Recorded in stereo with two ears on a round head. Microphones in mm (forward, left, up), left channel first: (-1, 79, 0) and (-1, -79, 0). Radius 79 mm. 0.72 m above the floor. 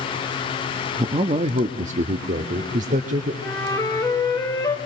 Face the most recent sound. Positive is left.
turn(degrees=20)  # may be behind; listen again after turning